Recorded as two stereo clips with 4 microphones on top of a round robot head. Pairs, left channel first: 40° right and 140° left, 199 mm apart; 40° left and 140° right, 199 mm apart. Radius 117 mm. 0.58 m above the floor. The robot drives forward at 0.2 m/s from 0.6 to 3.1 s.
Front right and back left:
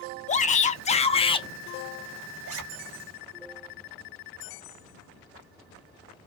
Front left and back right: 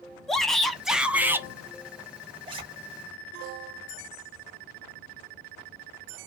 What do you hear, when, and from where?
0.3 s a shout: 45° right, 0.6 m; by 1.5 s 75° right, 0.6 m
2.5 s a zipper: 155° left, 0.6 m